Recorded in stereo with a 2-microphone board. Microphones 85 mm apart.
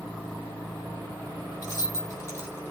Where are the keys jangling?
40° left (ahead or behind), 1.1 m; by 2.7 s 30° left (ahead or behind), 1.2 m.